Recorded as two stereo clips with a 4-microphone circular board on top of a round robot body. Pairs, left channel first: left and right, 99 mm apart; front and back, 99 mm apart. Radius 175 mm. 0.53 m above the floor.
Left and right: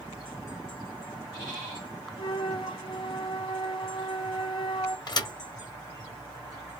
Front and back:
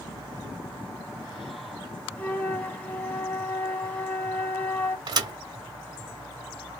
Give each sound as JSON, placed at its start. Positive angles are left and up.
{"t": 2.2, "sound": "a flute", "azimuth_deg": 75, "distance_m": 1.7}
{"t": 5.1, "sound": "a thud", "azimuth_deg": 135, "distance_m": 1.0}